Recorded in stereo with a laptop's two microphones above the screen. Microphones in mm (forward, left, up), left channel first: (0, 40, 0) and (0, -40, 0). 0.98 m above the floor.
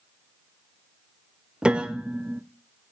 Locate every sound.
1.6 s a piano: 10° right (ahead or behind), 1.1 m